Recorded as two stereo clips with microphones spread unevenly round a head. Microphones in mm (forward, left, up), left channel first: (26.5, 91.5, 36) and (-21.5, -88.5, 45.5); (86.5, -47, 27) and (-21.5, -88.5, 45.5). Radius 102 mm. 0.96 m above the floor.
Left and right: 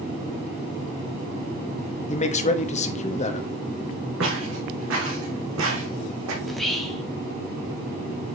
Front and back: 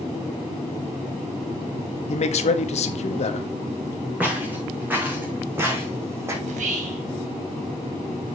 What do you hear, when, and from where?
2.1 s a man speaking: 25° left, 1.3 m
4.2 s footsteps: 85° right, 4.5 m; by 6.3 s 100° right, 3 m
6.4 s whispering: 165° left, 1.5 m